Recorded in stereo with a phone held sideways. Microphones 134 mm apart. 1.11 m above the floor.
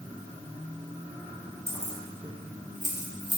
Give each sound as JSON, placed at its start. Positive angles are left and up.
{"t": 1.7, "sound": "keys jangling", "side_deg": -20, "distance_m": 0.6}